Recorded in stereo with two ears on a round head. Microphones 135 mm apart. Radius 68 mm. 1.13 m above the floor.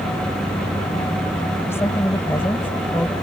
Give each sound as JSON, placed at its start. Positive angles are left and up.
{"t": 1.7, "sound": "a woman speaking", "side_deg": 15}